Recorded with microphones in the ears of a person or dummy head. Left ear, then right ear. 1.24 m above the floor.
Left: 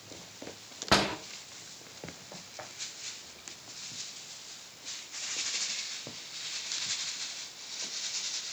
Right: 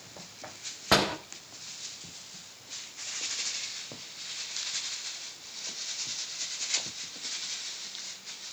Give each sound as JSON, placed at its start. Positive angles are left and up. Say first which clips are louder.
{"t": 0.9, "sound": "a door slam", "louder": "right 2 dB", "side_deg": -15, "distance_m": 1.5}